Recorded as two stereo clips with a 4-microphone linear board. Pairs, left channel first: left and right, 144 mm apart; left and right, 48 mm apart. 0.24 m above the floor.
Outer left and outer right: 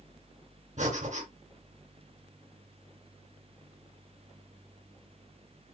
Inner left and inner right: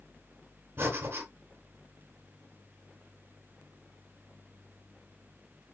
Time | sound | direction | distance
0.8 | breathing | 50° right (ahead or behind) | 2.5 m